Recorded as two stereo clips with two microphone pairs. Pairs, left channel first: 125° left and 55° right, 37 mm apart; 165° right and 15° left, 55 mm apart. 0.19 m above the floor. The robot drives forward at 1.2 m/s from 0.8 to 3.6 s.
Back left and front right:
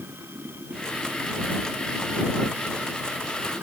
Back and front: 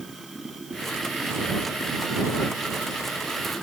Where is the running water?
75° right; by 3.6 s 80° right.